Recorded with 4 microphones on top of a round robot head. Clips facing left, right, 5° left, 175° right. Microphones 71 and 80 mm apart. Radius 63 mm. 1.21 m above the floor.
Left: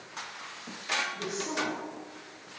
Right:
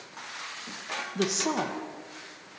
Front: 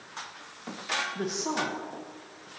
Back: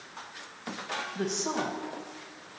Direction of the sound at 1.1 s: 80° right.